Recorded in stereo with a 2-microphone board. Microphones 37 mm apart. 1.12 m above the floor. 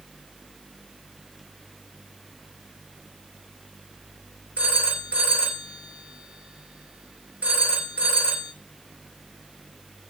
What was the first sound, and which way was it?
A phone ringing, 50° right (ahead or behind).